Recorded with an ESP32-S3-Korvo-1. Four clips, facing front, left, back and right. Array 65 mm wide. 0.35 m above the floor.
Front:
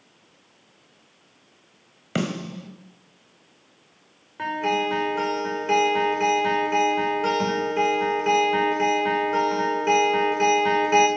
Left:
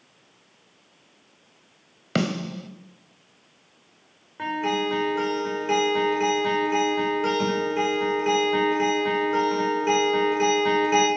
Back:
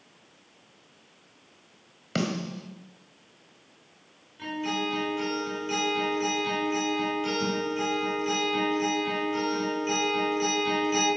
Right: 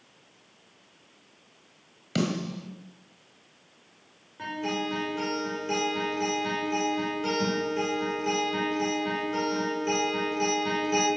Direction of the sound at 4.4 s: 35° left.